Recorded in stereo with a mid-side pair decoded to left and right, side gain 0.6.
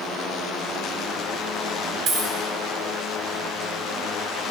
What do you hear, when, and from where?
2.1 s a dropped coin: 60° right, 1.7 m